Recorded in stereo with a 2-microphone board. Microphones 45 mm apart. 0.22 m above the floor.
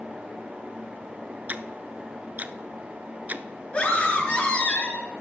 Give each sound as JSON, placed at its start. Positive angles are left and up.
{"t": 1.5, "sound": "ticking", "side_deg": -35, "distance_m": 0.6}
{"t": 3.7, "sound": "a scream", "side_deg": 30, "distance_m": 4.0}